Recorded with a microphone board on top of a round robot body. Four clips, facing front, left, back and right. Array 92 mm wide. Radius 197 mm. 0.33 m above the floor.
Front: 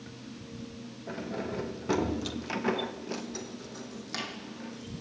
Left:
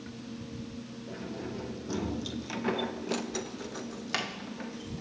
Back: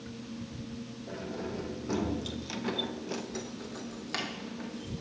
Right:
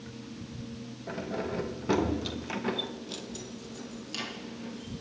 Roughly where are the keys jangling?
Ahead right.